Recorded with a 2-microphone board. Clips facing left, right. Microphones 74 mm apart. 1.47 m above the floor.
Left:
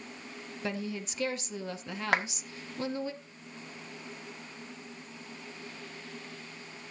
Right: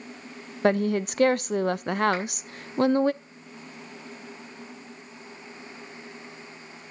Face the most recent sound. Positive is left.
turn(degrees=90)